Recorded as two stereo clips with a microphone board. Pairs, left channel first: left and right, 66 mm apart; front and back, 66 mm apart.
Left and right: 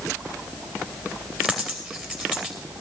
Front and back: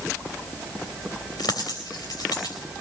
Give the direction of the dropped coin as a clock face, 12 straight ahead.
12 o'clock.